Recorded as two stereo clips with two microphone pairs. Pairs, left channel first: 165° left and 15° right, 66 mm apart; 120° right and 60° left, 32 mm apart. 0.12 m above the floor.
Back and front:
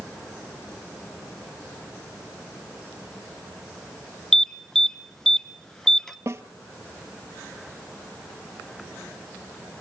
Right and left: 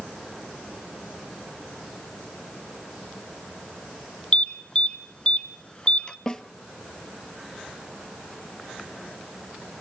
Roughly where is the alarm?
Behind right.